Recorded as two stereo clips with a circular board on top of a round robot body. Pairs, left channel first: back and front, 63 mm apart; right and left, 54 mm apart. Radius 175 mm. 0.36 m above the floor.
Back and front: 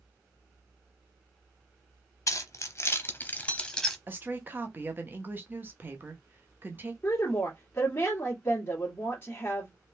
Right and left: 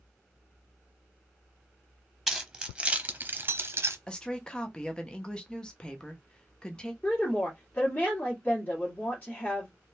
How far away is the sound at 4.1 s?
About 0.9 m.